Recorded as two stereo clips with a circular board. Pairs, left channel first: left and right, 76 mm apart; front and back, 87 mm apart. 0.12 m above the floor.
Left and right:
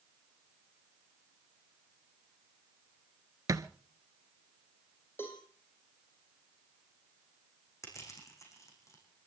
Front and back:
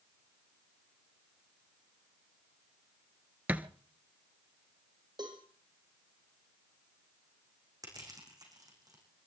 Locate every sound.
3.5 s a thud: 115° right, 0.9 m
5.2 s a cowbell: 150° left, 4.5 m
7.8 s crushing: 135° left, 5.5 m